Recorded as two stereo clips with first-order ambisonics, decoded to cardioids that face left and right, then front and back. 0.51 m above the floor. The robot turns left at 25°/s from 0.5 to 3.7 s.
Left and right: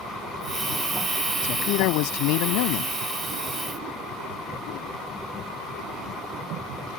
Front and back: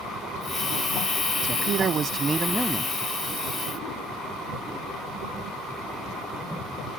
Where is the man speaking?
125° left; by 2.9 s 90° left.